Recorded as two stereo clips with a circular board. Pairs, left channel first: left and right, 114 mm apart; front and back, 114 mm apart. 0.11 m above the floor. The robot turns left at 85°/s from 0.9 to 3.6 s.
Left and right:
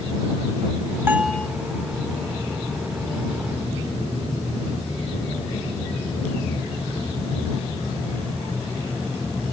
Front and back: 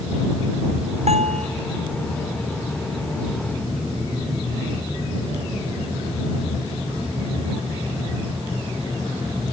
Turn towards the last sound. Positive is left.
turn(degrees=-15)